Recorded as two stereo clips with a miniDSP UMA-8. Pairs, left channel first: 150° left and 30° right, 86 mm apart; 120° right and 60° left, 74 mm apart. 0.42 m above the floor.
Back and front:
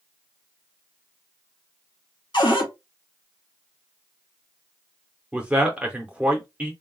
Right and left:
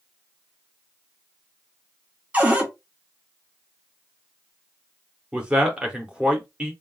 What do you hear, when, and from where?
2.3 s a cupboard door: 130° left, 1.1 m
5.3 s a man speaking: 10° left, 0.8 m